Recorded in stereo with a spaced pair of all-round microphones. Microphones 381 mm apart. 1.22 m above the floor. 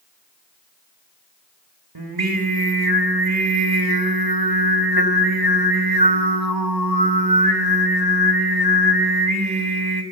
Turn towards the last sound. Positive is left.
turn(degrees=-70)  # may be behind; listen again after turning